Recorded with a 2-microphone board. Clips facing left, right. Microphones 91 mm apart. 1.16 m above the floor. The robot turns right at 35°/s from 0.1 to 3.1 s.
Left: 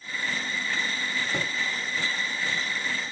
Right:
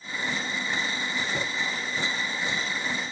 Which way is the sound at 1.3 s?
85° left.